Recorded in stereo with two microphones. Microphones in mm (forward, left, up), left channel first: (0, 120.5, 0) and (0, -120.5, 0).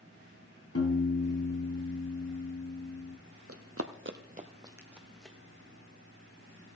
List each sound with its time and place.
0.8 s a piano: 80° left, 2 m
3.5 s running footsteps: 70° right (ahead or behind), 1.2 m; by 5.4 s 5° left (ahead or behind), 1.9 m